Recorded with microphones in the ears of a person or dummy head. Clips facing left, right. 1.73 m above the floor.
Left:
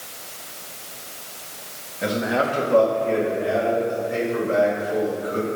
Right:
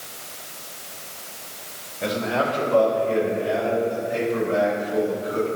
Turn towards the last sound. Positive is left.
turn(degrees=40)  # may be behind; listen again after turning